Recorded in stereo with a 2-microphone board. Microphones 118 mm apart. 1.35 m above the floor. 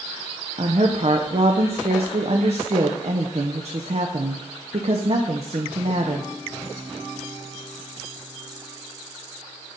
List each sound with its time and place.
0.6 s a woman speaking: 55° right (ahead or behind), 0.8 m